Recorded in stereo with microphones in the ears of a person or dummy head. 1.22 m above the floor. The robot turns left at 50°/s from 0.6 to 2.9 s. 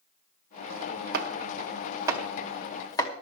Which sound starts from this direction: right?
Chopping, at 1.1 s.